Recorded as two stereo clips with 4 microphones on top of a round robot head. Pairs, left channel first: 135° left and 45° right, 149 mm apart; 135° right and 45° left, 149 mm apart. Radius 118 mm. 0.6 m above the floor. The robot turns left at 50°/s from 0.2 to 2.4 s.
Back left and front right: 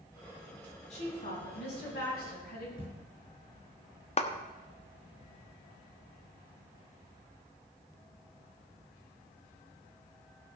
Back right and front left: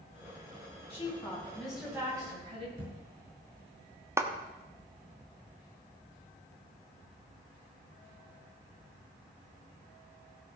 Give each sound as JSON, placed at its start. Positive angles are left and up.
{"t": 0.9, "sound": "a woman speaking", "azimuth_deg": 175, "distance_m": 6.0}
{"t": 2.8, "sound": "a thud", "azimuth_deg": 75, "distance_m": 5.5}
{"t": 4.2, "sound": "a clap", "azimuth_deg": 115, "distance_m": 1.2}